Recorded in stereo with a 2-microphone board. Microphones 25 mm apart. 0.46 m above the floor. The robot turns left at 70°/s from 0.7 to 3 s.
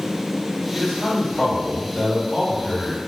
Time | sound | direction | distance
0.7 | a man speaking | 165° right | 1.9 m